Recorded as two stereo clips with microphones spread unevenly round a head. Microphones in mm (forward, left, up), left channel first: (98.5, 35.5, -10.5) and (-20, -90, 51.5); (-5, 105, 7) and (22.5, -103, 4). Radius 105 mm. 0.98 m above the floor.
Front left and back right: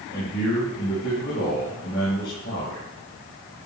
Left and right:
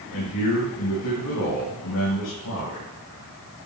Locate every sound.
0.1 s a man speaking: 95° left, 6.5 m